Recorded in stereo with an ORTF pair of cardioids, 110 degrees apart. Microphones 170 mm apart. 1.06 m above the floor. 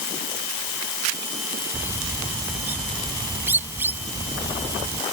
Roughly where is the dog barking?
No dog barking in this recording.